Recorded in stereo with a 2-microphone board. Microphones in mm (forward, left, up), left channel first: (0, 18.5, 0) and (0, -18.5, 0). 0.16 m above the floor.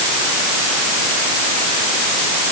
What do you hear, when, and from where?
Only background noise.